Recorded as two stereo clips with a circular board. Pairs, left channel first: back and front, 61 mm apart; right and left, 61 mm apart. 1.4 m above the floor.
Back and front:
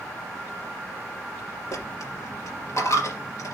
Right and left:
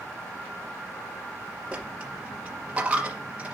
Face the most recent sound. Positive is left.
turn(degrees=160)